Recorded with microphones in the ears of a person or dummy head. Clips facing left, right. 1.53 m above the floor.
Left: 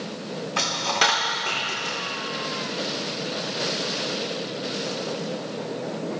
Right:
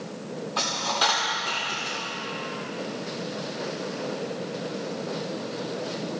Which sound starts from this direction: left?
A dropped coin, at 0.6 s.